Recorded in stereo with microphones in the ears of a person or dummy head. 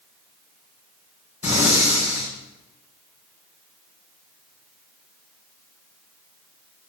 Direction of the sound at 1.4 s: 45° left (ahead or behind).